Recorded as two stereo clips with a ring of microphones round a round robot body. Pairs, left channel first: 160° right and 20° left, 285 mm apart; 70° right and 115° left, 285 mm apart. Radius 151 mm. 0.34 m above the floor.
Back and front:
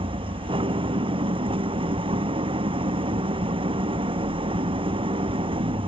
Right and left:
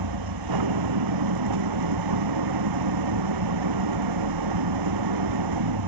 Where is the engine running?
95° left.